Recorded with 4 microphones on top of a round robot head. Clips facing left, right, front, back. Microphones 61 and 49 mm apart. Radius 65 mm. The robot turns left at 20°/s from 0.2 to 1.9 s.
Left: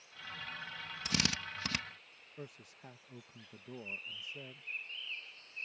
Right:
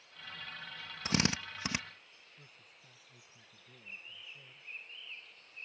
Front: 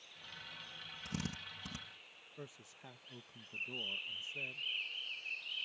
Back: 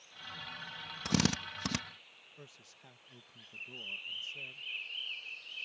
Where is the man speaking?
70° left.